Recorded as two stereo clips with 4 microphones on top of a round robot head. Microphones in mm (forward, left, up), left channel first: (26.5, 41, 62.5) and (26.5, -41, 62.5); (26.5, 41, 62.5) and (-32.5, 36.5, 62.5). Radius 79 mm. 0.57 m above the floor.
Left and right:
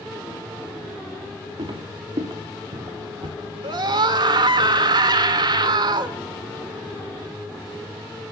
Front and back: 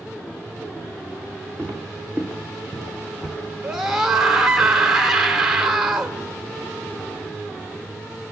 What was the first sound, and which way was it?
Footsteps, 65° right.